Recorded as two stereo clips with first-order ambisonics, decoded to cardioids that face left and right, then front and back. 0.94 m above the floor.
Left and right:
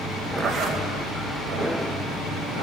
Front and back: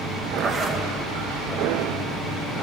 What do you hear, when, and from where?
0.4 s a zipper: 120° right, 1.1 m